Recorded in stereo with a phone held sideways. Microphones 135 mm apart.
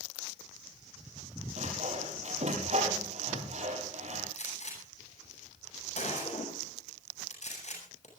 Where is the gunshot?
60° left (ahead or behind), 8.5 m.